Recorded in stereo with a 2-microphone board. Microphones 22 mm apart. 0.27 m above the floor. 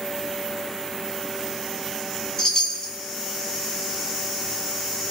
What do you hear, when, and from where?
2.4 s a chime: 30° left (ahead or behind), 1.3 m